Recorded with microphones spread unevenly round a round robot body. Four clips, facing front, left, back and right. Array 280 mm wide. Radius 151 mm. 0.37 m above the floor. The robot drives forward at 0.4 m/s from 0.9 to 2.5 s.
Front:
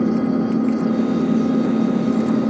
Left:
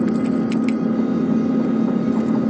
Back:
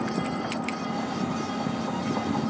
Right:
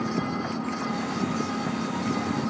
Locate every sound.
0.0 s an engine running: 40° left